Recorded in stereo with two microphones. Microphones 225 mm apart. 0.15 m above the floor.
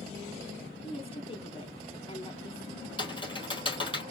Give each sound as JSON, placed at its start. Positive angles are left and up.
{"t": 0.8, "sound": "a woman speaking", "side_deg": 25, "distance_m": 1.1}
{"t": 3.0, "sound": "typing on a keyboard", "side_deg": 20, "distance_m": 3.5}